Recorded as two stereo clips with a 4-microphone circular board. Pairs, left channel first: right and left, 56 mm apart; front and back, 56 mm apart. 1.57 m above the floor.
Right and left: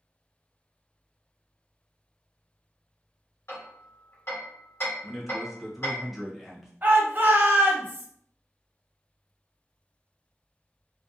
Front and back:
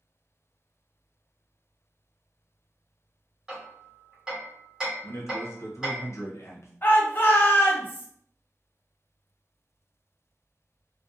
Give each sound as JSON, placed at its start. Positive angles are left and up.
{"t": 3.5, "sound": "hammering", "azimuth_deg": -110, "distance_m": 1.7}
{"t": 5.0, "sound": "a man speaking", "azimuth_deg": 5, "distance_m": 0.8}
{"t": 6.8, "sound": "a shout", "azimuth_deg": 40, "distance_m": 0.8}